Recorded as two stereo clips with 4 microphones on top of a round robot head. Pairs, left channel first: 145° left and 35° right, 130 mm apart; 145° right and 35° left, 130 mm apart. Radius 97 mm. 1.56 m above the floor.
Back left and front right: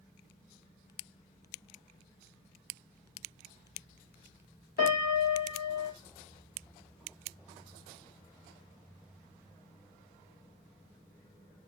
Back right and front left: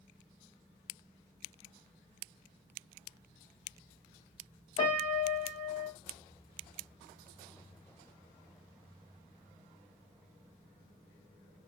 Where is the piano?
150° left, 1.1 m.